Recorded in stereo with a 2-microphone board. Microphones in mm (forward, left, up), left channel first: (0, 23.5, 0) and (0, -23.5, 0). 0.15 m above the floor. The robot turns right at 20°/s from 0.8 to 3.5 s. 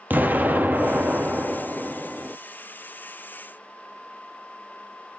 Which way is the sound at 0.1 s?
40° right.